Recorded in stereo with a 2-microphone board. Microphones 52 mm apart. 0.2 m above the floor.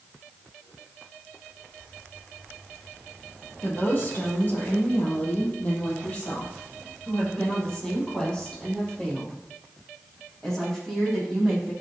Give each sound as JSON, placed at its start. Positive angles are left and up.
{"t": 3.6, "sound": "a woman speaking", "side_deg": 40, "distance_m": 6.0}